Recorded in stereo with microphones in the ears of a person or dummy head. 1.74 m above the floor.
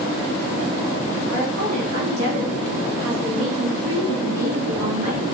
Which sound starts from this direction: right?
A woman speaking, at 1.3 s.